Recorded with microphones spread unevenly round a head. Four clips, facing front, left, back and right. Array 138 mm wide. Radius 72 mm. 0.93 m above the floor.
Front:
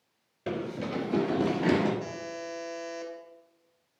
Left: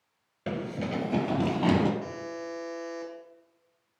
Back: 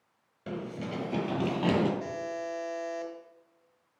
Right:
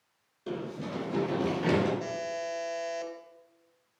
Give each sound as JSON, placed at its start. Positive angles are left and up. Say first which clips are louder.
{"t": 0.5, "sound": "running footsteps", "louder": "left 3 dB, front 4 dB", "azimuth_deg": 80, "distance_m": 1.0}
{"t": 2.0, "sound": "a buzzer", "louder": "right 3 dB, back 2 dB", "azimuth_deg": -115, "distance_m": 2.0}